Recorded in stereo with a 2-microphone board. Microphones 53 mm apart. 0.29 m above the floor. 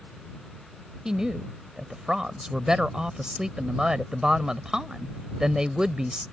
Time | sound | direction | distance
1.1 | a woman speaking | 15° right (ahead or behind) | ?